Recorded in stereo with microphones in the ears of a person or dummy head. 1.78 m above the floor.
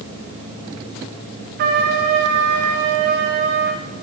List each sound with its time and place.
1.6 s a trumpet: 45° right (ahead or behind), 1.2 m